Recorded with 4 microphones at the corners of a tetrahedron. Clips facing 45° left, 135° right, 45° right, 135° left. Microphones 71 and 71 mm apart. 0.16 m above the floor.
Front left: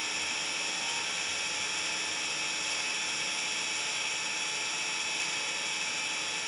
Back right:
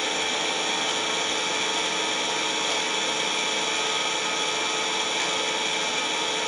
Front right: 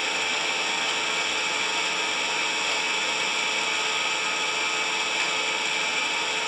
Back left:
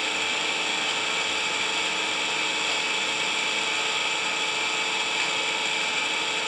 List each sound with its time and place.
0.0 s an engine running: 135° right, 1.9 m